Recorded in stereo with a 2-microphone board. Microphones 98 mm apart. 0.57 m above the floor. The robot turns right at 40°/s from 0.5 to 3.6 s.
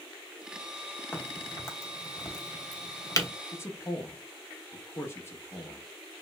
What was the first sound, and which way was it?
A crack, 20° left (ahead or behind).